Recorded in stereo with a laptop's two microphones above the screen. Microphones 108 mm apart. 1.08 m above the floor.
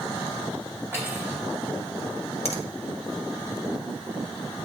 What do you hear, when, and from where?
0.9 s cutlery clinking: 25° right (ahead or behind), 3.5 m
2.5 s a finger snap: 70° left (ahead or behind), 1.3 m